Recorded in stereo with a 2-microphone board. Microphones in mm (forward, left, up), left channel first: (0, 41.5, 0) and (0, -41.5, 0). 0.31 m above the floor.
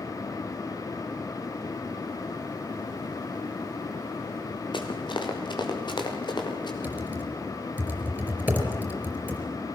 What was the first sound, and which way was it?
Running footsteps, 75° left (ahead or behind).